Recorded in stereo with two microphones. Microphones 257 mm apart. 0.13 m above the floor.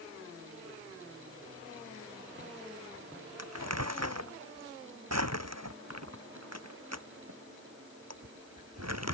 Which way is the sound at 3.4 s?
80° right.